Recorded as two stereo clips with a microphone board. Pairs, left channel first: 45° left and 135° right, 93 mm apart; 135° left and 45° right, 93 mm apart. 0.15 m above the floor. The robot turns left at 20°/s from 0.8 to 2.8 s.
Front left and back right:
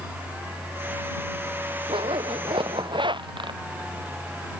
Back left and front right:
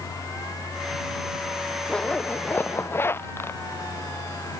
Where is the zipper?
145° right; by 3.6 s 160° right.